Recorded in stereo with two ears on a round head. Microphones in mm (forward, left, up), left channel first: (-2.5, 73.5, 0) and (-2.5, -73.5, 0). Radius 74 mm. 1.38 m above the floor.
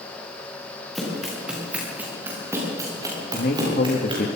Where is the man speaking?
55° left (ahead or behind), 1.8 m.